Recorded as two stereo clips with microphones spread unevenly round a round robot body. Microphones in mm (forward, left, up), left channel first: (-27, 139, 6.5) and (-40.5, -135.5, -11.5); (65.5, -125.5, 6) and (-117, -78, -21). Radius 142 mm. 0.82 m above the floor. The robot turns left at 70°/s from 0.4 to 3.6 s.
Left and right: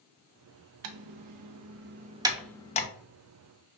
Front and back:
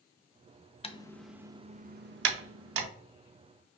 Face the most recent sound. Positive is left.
turn(degrees=95)